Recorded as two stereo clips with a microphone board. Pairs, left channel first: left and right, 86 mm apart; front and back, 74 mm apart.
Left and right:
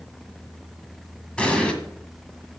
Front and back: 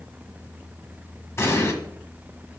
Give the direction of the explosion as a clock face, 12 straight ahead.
11 o'clock.